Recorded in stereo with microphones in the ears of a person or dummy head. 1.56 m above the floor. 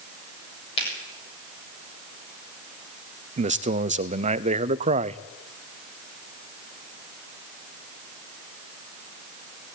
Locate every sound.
0.8 s a finger snap: 30° left (ahead or behind), 7 m
3.4 s a man speaking: 40° right (ahead or behind), 0.6 m